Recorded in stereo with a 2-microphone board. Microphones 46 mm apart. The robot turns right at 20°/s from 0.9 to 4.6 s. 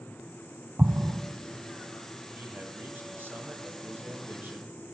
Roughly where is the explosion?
Right.